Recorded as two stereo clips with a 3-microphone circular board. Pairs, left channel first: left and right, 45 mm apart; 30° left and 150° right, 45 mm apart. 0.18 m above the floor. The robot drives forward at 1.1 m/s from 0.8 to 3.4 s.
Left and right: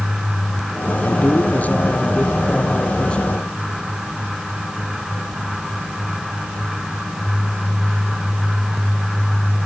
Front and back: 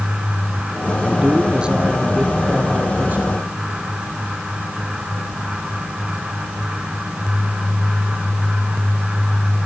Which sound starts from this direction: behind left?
A man speaking, at 1.0 s.